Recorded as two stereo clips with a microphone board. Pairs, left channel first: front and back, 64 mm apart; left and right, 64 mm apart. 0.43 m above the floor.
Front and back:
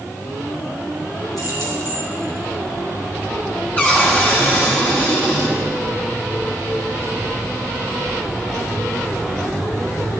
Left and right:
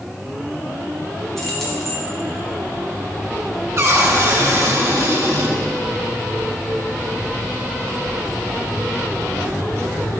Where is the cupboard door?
60° right, 2 m.